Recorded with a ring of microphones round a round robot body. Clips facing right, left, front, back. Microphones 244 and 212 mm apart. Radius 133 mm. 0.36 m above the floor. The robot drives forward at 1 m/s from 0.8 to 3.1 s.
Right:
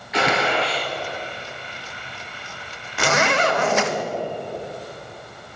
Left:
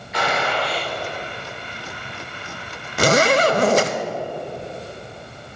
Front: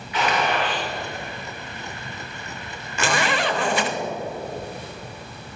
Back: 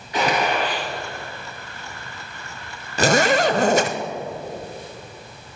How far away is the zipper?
About 0.8 m.